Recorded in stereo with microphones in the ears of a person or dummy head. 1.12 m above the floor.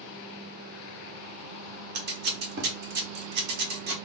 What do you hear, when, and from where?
1.9 s scissors: 55° right (ahead or behind), 0.9 m